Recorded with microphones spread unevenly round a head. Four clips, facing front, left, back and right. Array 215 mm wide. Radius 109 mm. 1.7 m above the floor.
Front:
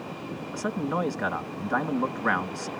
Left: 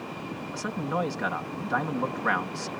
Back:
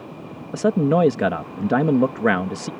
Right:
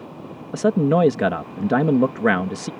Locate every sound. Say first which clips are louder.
0.5 s a man speaking: right 13 dB, back 11 dB; 125° right